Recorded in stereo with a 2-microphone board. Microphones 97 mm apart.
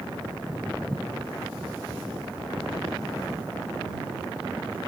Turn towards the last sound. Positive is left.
turn(degrees=10)  # may be behind; listen again after turning